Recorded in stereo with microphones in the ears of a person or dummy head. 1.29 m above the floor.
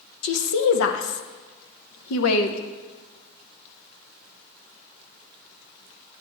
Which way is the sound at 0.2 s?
80° left.